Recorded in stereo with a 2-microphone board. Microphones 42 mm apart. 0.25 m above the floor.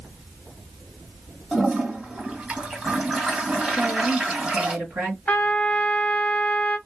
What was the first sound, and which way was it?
A toilet flushing, 25° right (ahead or behind).